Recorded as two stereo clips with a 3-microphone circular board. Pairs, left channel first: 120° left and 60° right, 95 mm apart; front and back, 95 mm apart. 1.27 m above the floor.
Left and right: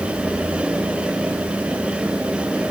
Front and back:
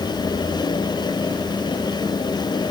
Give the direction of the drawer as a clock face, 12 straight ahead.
No drawer in this recording.